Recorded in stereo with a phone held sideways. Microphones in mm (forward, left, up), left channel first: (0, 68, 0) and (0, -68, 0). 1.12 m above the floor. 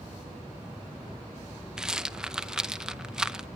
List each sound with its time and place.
1.8 s a rattle: 5° right (ahead or behind), 0.6 m